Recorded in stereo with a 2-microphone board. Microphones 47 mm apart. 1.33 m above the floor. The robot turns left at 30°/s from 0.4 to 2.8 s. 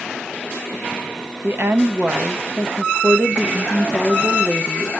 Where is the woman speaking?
120° right, 0.7 m; by 4.9 s 160° right, 0.7 m.